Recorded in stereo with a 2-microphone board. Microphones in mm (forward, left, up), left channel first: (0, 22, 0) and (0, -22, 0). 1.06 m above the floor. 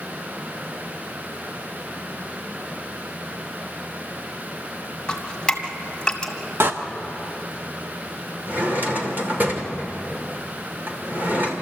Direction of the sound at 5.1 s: 15° left (ahead or behind).